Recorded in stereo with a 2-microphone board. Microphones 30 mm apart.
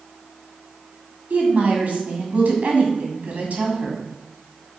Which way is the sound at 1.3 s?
60° right (ahead or behind).